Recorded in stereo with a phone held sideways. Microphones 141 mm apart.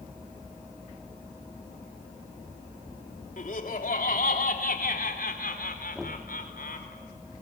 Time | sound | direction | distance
3.4 | laughter | 65° left (ahead or behind) | 3.5 m
6.0 | knocking | centre (ahead or behind) | 2.5 m